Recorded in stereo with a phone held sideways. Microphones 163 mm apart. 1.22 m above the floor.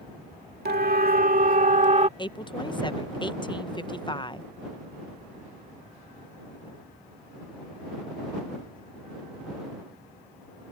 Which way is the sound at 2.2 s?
30° left (ahead or behind).